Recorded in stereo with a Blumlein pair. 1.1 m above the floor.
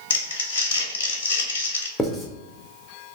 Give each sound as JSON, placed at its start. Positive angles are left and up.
{"t": 0.1, "sound": "crumpling", "azimuth_deg": 60, "distance_m": 0.8}
{"t": 2.0, "sound": "writing", "azimuth_deg": 10, "distance_m": 0.8}